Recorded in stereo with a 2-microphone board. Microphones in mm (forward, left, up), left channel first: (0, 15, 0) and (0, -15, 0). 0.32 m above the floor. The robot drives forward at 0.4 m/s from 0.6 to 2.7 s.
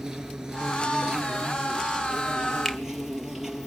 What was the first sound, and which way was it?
An insect, 25° right (ahead or behind).